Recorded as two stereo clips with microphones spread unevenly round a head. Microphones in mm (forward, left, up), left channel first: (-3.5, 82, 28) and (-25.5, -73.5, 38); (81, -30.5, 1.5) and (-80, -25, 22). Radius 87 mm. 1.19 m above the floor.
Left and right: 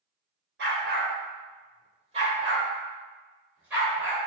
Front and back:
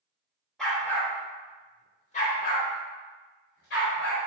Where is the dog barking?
90° right, 1.3 m; by 4.2 s 15° right, 2 m.